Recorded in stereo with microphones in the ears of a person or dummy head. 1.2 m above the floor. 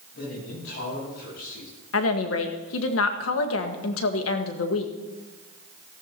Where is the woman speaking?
65° left (ahead or behind), 1.5 m.